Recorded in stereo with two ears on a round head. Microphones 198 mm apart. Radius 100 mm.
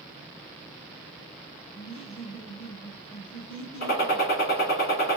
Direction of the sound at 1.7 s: 30° left (ahead or behind).